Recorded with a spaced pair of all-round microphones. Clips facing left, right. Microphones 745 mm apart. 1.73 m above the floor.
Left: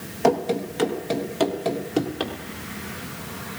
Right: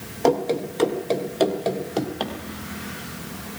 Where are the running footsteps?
45° left (ahead or behind), 2.5 m; by 2.3 s 40° left (ahead or behind), 3 m.